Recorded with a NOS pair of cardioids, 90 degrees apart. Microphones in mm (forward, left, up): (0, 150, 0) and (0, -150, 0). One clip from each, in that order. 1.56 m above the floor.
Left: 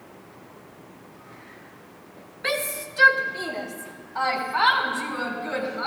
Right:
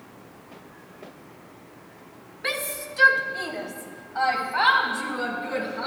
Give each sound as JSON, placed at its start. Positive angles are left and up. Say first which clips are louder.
{"t": 2.4, "sound": "a shout", "louder": "left 2 dB", "azimuth_deg": 10, "distance_m": 1.6}